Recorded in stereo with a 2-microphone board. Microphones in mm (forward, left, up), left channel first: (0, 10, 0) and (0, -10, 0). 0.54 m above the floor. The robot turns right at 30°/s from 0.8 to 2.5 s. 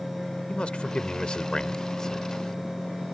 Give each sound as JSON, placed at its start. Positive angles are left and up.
{"t": 0.5, "sound": "a man speaking", "azimuth_deg": 110}